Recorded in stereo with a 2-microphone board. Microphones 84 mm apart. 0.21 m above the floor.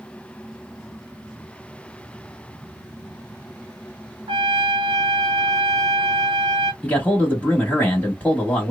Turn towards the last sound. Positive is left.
turn(degrees=15)  # may be behind; listen again after turning